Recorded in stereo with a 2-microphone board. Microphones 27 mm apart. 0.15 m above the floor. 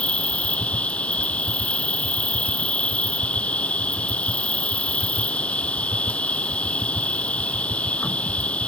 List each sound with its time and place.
0.0 s an insect: 55° left (ahead or behind)